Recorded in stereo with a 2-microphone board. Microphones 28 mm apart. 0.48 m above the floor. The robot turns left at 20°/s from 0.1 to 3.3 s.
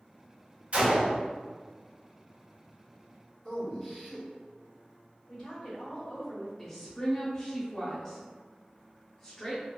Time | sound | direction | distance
0.7 | a gunshot | 45° right (ahead or behind) | 1.6 m
3.5 | a man speaking | 10° left (ahead or behind) | 1.3 m
5.3 | a woman speaking | 40° left (ahead or behind) | 1.5 m
6.6 | a woman speaking | 15° left (ahead or behind) | 0.8 m